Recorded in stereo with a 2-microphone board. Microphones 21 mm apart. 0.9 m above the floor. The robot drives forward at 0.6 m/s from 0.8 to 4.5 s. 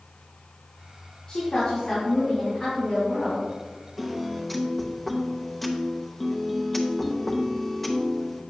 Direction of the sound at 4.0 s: 5° left (ahead or behind).